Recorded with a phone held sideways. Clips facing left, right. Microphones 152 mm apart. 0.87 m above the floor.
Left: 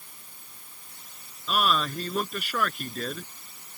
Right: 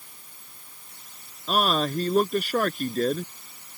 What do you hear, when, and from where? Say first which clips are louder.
1.5 s a man speaking: right 3 dB; 40° right (ahead or behind)